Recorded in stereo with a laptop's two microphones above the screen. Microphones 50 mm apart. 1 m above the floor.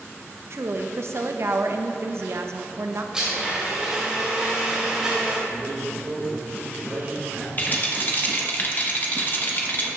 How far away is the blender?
About 2.5 m.